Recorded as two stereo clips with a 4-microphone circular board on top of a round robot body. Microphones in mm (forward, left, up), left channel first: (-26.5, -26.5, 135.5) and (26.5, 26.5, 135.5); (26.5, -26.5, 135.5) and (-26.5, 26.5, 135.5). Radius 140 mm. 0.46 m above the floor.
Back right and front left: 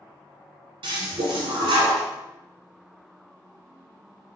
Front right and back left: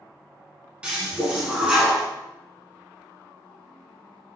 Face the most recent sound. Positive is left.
turn(degrees=60)